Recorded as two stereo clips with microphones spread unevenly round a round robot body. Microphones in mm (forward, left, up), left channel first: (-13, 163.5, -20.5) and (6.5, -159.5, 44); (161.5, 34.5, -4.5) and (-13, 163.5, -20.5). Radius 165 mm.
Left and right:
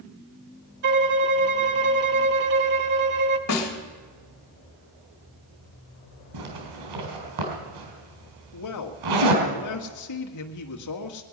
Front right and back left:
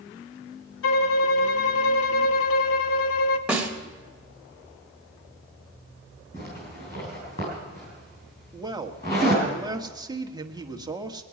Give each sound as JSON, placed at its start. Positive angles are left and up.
{"t": 0.8, "sound": "a violin", "azimuth_deg": -35, "distance_m": 0.7}
{"t": 3.5, "sound": "a snare drum", "azimuth_deg": 60, "distance_m": 2.0}
{"t": 6.3, "sound": "a zipper", "azimuth_deg": -100, "distance_m": 3.5}
{"t": 8.5, "sound": "a man speaking", "azimuth_deg": 75, "distance_m": 1.6}